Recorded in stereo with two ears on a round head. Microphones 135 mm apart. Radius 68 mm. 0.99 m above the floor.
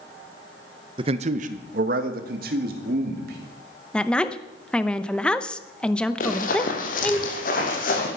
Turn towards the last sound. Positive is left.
turn(degrees=55)  # may be behind; listen again after turning